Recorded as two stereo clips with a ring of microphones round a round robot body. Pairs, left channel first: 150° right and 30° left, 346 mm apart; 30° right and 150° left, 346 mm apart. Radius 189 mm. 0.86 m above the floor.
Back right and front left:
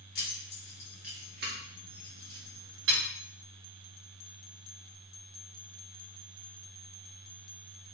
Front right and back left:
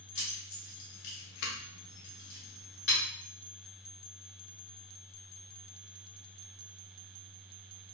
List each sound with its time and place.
0.1 s keys jangling: 85° right, 1.5 m; by 3.0 s 35° left, 1.7 m